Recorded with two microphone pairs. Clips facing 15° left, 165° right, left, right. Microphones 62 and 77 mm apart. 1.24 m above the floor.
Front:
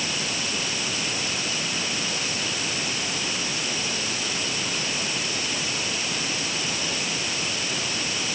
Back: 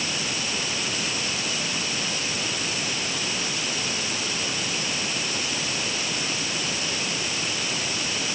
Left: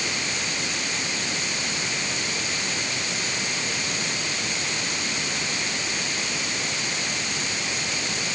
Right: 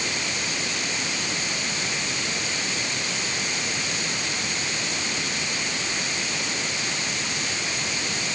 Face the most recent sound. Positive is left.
No sound to turn to.